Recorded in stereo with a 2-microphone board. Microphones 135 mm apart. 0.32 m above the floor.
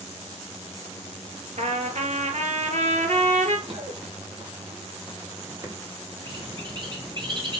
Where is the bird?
40° right (ahead or behind), 2.5 m.